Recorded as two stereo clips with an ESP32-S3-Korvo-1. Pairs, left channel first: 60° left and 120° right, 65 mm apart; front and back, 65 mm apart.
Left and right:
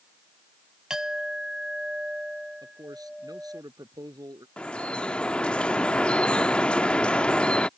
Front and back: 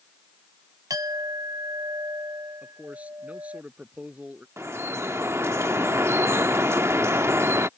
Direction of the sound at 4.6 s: 135° left.